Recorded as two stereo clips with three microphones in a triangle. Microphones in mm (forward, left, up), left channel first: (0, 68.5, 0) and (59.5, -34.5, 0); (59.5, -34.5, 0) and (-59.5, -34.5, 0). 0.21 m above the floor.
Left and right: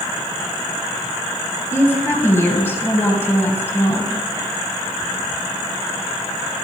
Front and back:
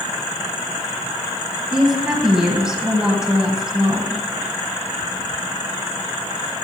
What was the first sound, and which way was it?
A woman speaking, 110° left.